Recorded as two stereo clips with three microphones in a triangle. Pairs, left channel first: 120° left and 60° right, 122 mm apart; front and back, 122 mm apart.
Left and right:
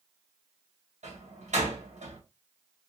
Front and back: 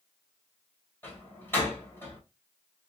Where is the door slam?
70° right, 2.5 m.